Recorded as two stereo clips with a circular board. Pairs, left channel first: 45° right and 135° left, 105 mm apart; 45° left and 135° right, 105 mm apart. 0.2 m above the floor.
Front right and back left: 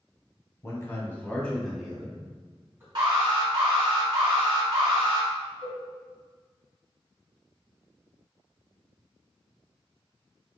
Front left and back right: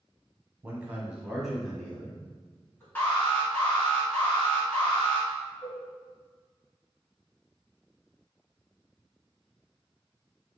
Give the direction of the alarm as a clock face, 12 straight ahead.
8 o'clock.